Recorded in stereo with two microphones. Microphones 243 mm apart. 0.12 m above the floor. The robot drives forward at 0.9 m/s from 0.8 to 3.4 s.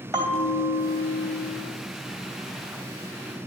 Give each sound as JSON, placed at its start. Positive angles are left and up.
{"t": 0.1, "sound": "a bell", "side_deg": -15, "distance_m": 3.0}